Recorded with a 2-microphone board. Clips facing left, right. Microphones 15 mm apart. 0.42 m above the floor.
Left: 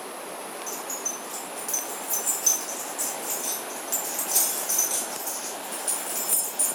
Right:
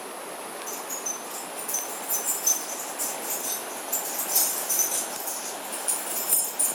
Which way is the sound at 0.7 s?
55° left (ahead or behind).